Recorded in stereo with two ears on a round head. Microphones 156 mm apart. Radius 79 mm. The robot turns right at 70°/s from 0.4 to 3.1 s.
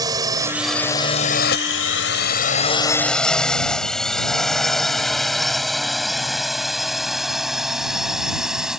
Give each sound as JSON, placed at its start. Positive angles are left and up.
{"t": 0.0, "sound": "a drone", "side_deg": -20}